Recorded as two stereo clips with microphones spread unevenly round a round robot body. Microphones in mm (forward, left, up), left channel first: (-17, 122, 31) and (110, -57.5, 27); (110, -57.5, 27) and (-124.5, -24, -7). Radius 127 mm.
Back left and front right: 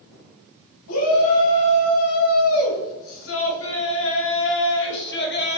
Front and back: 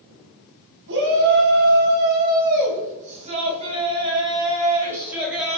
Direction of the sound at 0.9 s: 125° left.